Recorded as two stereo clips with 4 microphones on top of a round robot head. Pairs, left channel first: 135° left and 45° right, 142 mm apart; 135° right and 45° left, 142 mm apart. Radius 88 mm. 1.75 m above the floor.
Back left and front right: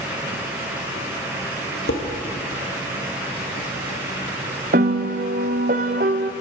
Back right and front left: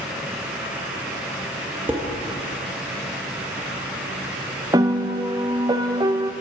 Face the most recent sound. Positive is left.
turn(degrees=-20)